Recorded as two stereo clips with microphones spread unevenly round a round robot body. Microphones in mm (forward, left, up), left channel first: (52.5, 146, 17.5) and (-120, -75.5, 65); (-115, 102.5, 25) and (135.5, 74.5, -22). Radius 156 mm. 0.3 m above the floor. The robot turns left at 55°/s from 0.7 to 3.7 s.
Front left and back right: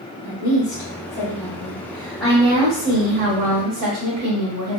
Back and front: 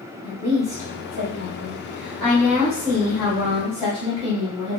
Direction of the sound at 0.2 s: 55° left.